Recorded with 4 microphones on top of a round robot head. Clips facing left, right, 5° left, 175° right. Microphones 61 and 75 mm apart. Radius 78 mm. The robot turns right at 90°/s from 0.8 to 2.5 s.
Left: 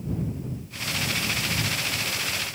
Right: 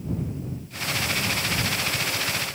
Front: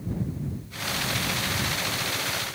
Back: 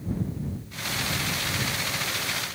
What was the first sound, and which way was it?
Only background noise.